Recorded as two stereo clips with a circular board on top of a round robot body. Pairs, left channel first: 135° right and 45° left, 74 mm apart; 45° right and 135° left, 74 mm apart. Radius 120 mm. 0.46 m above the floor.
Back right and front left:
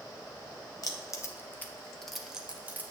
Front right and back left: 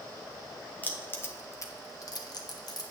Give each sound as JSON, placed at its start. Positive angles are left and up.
{"t": 0.8, "sound": "keys jangling", "azimuth_deg": -110, "distance_m": 1.4}